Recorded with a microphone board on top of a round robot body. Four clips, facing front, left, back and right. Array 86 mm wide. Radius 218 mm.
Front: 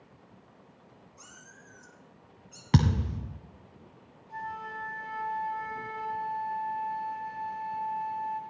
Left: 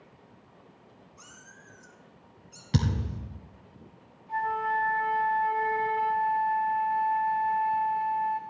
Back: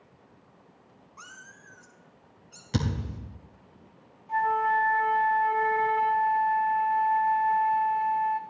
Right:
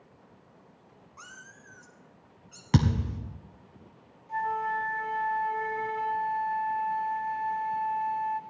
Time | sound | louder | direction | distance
1.2 | a cat meowing | right 6 dB, back 8 dB | 145° right | 1.1 m
2.7 | a thud | right 3 dB, front 4 dB | 45° right | 0.8 m
4.3 | a flute | left 1 dB, back 14 dB | 165° left | 0.7 m